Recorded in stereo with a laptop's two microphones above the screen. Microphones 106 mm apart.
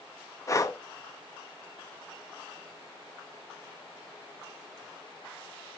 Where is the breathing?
30° left (ahead or behind), 0.9 m.